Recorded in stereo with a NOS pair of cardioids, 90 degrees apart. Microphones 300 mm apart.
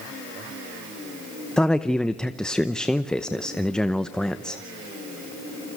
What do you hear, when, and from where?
1.6 s a man speaking: straight ahead, 0.8 m